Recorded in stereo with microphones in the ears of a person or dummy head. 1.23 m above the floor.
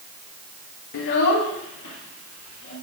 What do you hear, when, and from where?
0.9 s a child speaking: 55° left (ahead or behind), 0.7 m; by 2.7 s 50° left (ahead or behind), 2 m